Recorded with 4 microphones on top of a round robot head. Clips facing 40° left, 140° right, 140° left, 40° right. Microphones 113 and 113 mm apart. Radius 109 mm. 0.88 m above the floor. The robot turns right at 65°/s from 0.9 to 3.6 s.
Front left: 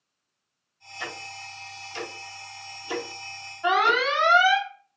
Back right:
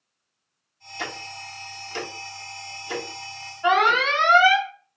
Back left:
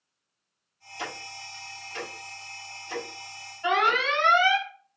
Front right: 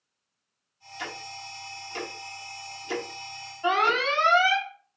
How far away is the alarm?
About 1.7 m.